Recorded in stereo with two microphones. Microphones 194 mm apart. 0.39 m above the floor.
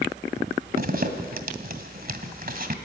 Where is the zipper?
50° right (ahead or behind), 1.8 m.